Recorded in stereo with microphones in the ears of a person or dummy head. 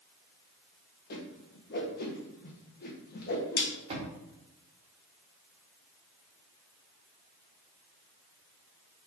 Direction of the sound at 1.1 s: 50° left (ahead or behind).